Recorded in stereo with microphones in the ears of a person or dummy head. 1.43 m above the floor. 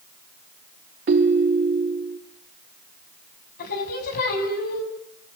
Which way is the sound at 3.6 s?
50° left (ahead or behind).